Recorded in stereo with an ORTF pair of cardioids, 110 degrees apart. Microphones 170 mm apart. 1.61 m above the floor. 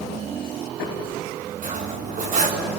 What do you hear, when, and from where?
1.6 s cutlery clinking: 50° right, 4 m